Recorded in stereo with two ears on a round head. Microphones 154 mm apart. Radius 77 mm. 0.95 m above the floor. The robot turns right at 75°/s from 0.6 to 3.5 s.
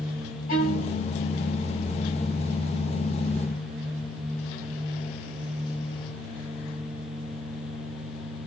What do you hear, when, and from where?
0.5 s a violin: 120° left, 1.7 m; by 1.0 s 155° left, 1.7 m